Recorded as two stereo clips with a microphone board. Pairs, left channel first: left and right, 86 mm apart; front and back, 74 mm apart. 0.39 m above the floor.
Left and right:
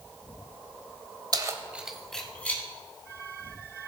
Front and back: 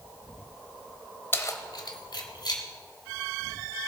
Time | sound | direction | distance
1.3 | keys jangling | 60° right | 0.9 m